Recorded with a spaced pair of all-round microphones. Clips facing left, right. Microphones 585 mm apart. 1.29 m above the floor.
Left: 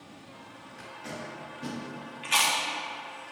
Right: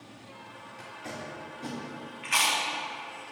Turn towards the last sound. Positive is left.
turn(degrees=60)  # may be behind; listen again after turning